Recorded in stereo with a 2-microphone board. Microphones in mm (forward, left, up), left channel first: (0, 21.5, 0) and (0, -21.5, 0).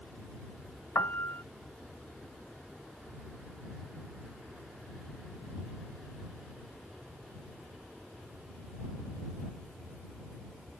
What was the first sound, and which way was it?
A piano, 45° left (ahead or behind).